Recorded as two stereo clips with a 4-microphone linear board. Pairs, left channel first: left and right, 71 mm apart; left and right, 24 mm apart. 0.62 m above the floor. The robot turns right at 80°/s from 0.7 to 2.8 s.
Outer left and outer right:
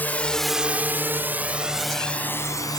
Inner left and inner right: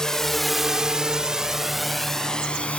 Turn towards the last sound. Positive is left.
turn(degrees=65)  # may be behind; listen again after turning